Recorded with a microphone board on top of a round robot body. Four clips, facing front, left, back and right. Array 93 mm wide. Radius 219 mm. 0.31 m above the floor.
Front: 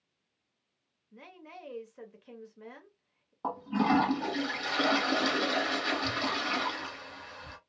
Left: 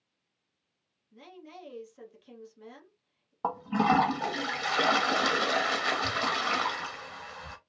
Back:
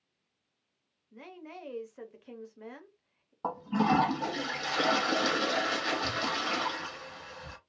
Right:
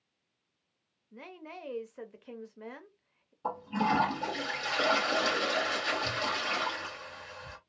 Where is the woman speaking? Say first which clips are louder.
Right 2 dB, back 3 dB; 100° right, 1.0 m.